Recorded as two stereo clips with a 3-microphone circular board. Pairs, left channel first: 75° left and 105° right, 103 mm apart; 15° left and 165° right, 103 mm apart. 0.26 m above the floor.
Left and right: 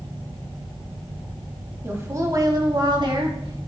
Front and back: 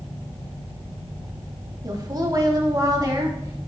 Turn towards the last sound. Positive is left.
turn(degrees=-120)